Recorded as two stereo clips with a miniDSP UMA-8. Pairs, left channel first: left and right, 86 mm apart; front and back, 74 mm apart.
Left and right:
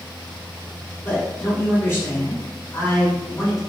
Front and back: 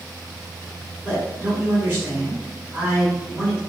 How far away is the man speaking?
About 2.0 m.